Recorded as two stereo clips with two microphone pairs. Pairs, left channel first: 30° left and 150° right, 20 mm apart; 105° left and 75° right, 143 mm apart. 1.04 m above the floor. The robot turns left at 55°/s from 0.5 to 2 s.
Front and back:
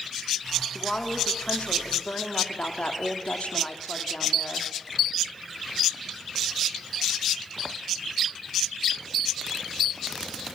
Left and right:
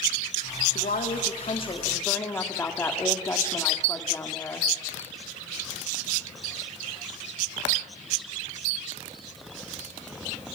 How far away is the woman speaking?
About 2.5 m.